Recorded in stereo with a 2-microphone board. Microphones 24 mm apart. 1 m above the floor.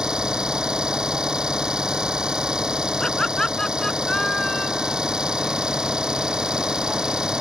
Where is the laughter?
25° left (ahead or behind).